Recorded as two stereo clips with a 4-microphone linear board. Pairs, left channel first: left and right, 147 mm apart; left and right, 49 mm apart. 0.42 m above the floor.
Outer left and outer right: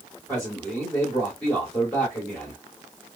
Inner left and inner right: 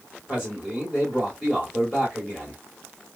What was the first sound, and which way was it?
A man speaking, 5° left (ahead or behind).